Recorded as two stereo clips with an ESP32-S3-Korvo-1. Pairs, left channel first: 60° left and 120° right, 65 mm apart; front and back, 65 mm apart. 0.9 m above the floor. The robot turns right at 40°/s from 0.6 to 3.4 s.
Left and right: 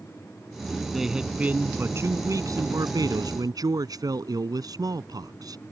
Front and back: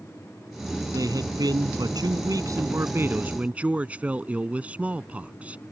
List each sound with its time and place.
0.9 s a man speaking: 150° left; by 5.6 s 110° right